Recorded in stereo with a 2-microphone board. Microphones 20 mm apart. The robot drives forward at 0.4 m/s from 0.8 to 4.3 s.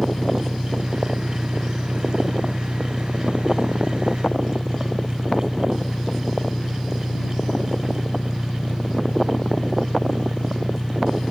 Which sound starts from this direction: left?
An engine running, at 0.0 s.